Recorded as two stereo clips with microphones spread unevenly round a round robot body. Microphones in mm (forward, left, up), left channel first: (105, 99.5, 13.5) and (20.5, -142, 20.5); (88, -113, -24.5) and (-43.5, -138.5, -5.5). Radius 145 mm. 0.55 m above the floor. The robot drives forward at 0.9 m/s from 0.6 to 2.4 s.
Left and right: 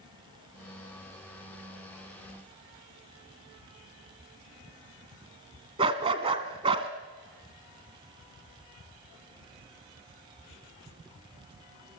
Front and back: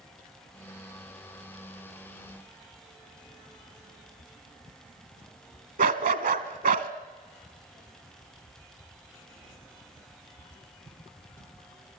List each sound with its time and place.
5.8 s a dog barking: straight behind, 1.3 m